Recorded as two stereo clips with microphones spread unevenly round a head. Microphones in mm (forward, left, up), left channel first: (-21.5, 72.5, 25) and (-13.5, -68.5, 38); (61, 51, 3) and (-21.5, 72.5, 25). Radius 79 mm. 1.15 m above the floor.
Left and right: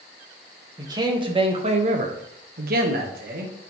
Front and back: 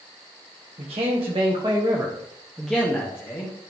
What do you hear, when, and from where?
0.8 s a man speaking: 155° right, 1.7 m; by 3.5 s 65° right, 1.5 m